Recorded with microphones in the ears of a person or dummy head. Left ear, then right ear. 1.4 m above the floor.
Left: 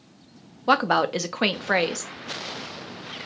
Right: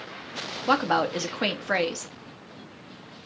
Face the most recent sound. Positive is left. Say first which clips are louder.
# left 3 dB
turn(degrees=10)  # may be behind; listen again after turning